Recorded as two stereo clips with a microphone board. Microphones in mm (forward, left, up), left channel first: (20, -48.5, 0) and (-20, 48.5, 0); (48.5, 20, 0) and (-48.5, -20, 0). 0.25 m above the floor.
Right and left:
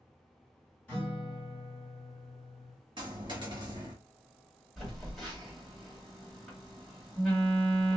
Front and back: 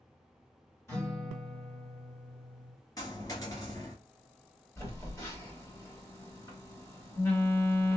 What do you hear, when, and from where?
0.9 s a guitar: 5° right, 1.8 m
3.0 s a dropped coin: 70° left, 1.4 m
4.8 s a phone buzzing: 25° left, 1.4 m